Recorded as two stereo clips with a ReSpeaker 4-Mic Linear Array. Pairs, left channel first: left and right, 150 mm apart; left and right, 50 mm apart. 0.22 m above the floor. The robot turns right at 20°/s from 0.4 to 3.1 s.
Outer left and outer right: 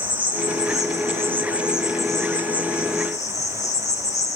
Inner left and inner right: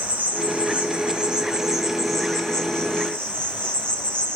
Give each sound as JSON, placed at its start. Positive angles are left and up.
{"t": 0.0, "sound": "an insect", "azimuth_deg": -30, "distance_m": 4.5}